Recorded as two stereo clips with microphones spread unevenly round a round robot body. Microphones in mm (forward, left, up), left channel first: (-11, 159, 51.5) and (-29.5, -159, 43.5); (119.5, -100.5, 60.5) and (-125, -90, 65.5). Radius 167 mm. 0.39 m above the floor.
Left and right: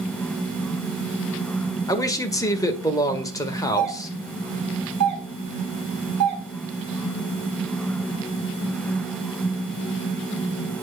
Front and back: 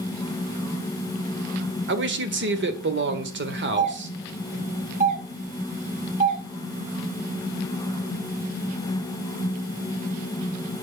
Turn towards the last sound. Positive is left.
turn(degrees=-125)